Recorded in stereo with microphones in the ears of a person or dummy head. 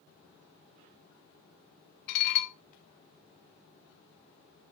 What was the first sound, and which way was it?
Dishes clattering, 60° left (ahead or behind).